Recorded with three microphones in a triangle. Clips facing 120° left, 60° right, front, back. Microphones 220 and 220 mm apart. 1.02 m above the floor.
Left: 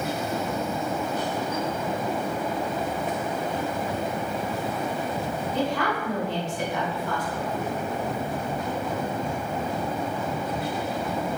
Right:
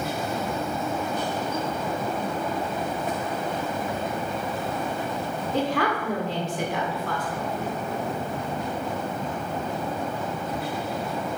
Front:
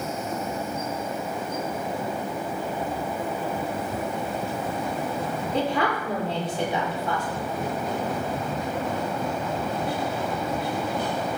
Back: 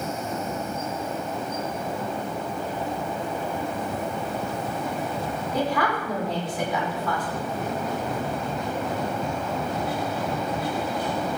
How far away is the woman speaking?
About 3.5 m.